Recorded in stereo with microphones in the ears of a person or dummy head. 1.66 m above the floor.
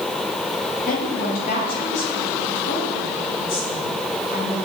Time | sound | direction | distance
0.9 | a woman speaking | 55° left (ahead or behind) | 8.5 m